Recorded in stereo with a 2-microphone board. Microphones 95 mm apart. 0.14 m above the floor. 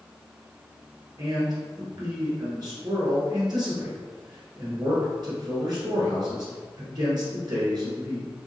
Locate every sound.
1.2 s a man speaking: 45° right (ahead or behind), 1.6 m